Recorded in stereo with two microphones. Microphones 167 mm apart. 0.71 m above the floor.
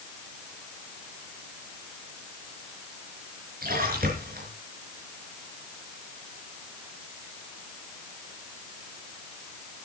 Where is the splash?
60° right (ahead or behind), 5 m.